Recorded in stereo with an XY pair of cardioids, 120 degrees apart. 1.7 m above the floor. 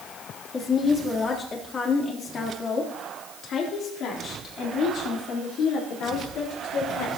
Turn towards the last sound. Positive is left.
turn(degrees=80)